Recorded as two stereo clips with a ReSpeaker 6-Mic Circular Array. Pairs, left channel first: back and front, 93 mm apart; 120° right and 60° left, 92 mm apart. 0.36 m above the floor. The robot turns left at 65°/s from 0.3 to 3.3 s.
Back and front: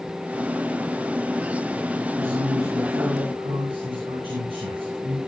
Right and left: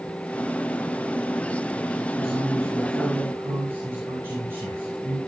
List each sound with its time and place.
2.2 s a man speaking: 70° left, 6 m; by 5.2 s 5° right, 6 m